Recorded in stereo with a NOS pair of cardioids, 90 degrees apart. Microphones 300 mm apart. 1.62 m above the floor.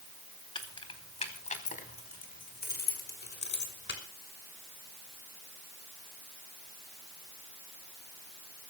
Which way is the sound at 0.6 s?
15° left.